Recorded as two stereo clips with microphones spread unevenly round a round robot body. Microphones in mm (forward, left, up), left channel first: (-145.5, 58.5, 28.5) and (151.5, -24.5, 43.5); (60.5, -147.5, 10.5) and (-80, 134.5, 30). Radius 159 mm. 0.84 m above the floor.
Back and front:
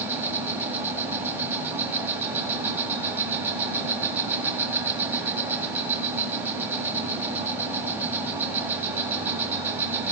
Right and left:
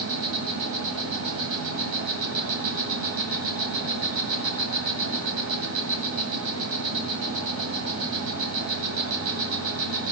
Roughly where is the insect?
Ahead left.